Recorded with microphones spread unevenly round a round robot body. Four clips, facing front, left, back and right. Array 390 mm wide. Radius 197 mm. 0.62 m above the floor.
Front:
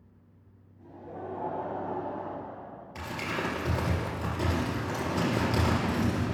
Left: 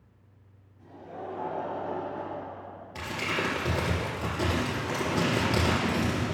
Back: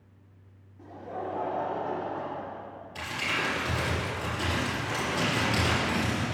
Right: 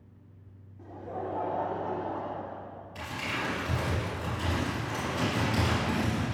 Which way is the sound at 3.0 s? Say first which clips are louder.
Left 4 dB, back 1 dB; 80° left.